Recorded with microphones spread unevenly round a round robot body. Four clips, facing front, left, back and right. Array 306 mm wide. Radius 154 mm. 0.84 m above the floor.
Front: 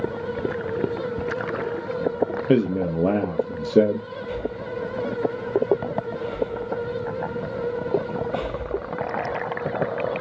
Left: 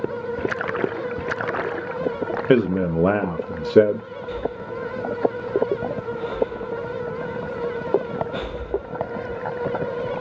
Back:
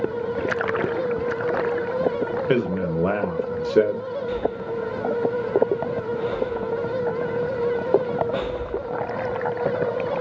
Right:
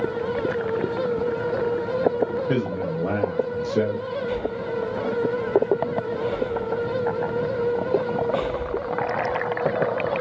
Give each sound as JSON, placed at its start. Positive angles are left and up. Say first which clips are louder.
{"t": 2.5, "sound": "a man speaking", "louder": "left 6 dB, front 3 dB", "azimuth_deg": 75, "distance_m": 0.5}
{"t": 4.3, "sound": "breathing", "louder": "left 3 dB, back 2 dB", "azimuth_deg": -120, "distance_m": 2.5}